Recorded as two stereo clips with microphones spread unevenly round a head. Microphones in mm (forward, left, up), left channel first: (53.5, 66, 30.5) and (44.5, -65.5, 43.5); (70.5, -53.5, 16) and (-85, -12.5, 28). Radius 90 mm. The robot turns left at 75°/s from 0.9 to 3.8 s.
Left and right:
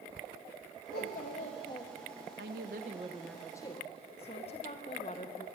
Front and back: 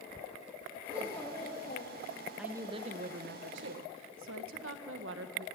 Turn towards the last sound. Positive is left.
turn(degrees=145)